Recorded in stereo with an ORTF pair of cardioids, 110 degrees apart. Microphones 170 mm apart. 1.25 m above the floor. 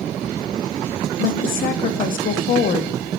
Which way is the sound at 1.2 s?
55° left.